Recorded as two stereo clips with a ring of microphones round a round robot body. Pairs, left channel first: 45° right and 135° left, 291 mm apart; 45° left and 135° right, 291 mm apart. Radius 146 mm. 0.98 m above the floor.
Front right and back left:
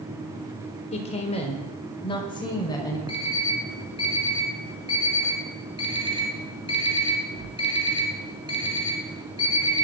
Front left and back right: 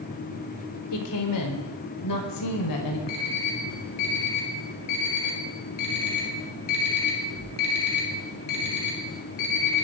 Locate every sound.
0.9 s a woman speaking: 20° left, 3.5 m; by 3.0 s 30° left, 5 m
3.1 s an alarm clock: 30° left, 6 m